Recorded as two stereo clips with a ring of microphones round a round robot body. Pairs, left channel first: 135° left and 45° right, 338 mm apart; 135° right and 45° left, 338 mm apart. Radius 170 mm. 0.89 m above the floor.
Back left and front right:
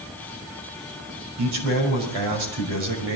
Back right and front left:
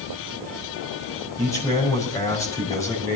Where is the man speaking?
55° right, 5 m.